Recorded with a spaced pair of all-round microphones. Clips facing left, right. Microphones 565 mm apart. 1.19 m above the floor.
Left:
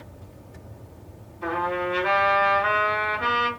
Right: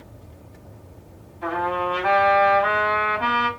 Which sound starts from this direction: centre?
A trumpet, at 1.4 s.